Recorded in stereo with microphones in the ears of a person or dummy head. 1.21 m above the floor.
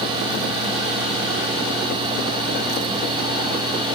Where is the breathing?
No breathing in this recording.